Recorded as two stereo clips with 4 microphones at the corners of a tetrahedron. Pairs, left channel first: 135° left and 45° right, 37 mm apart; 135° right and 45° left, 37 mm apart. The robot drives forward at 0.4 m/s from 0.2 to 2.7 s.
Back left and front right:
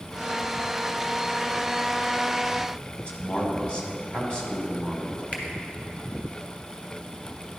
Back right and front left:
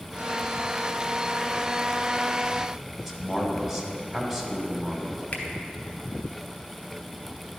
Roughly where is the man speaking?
Left.